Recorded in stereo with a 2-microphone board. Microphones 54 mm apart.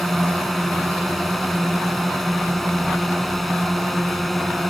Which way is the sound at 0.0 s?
5° left (ahead or behind).